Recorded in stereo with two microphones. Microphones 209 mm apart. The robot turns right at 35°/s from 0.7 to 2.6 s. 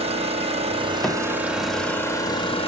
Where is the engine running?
35° right, 1.1 m; by 2.7 s 30° left, 1.1 m.